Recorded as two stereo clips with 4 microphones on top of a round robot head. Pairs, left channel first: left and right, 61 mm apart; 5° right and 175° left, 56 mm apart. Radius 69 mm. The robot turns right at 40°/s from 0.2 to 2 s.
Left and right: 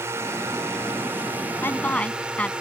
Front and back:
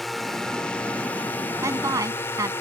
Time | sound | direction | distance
0.0 | a drone | 95° right | ?
1.6 | a woman speaking | 145° left | ?